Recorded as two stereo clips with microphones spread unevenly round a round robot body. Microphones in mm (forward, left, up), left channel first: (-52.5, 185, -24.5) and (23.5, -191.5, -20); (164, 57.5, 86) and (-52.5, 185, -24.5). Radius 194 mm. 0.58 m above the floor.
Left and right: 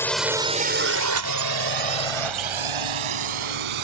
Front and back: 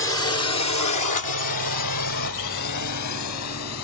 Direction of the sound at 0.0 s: 20° left.